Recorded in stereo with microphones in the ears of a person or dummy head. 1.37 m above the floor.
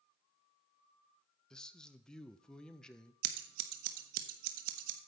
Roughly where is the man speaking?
Centre.